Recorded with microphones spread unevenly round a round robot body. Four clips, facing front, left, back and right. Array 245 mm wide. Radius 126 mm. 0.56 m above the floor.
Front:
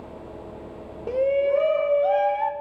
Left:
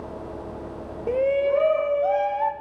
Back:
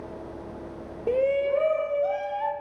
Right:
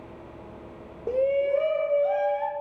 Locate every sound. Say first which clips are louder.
1.1 s a shout: left 2 dB, front 2 dB; 105° left, 0.8 m; by 2.5 s 60° left, 1.9 m